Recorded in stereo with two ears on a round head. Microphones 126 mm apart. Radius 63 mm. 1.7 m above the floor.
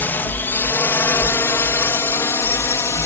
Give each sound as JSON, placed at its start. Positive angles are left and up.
{"t": 0.0, "sound": "a drone", "side_deg": 15}